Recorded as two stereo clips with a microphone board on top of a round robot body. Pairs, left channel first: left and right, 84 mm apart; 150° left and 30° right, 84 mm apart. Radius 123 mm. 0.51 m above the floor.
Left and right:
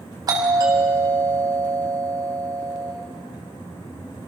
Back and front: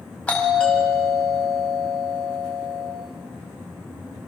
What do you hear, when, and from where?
0.3 s a doorbell: 135° right, 5.5 m